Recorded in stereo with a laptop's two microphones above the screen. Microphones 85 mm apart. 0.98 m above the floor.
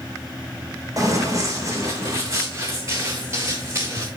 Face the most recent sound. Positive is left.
turn(degrees=-30)  # may be behind; listen again after turning